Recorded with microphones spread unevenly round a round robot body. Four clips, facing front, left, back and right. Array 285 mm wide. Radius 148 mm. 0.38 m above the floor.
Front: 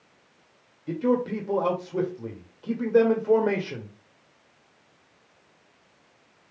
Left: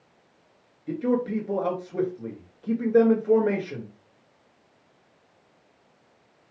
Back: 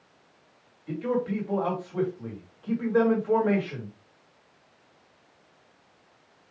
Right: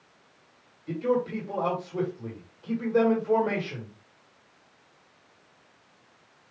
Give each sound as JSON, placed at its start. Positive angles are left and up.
{"t": 0.9, "sound": "a man speaking", "azimuth_deg": 20, "distance_m": 1.9}